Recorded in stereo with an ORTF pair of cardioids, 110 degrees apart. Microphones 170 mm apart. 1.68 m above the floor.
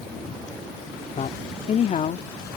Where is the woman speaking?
40° left; by 2.3 s 50° left.